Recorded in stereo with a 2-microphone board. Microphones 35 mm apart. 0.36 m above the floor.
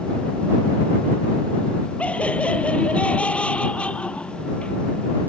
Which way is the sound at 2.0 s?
40° left (ahead or behind).